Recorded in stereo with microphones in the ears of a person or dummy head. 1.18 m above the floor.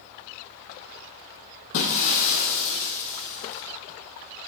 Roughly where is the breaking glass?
Left.